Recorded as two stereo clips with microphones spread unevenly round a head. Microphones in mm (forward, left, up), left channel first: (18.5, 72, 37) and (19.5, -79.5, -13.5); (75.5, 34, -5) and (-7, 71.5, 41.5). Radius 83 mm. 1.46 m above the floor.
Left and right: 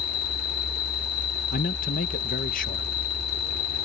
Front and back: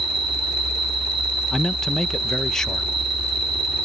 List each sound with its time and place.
0.0 s an insect: 120° left
1.5 s a man speaking: 70° left